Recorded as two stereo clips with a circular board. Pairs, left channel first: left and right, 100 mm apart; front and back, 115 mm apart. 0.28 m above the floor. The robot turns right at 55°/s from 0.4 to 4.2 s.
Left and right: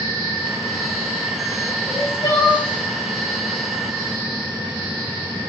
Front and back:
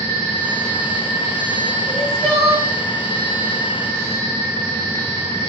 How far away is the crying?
About 1.2 m.